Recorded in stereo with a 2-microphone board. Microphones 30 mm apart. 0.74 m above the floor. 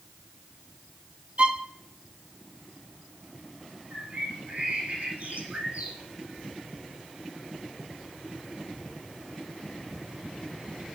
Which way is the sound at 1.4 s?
40° right (ahead or behind).